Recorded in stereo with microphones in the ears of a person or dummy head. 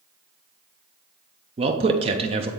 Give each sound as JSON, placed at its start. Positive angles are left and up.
{"t": 1.6, "sound": "a man speaking", "side_deg": -25, "distance_m": 0.6}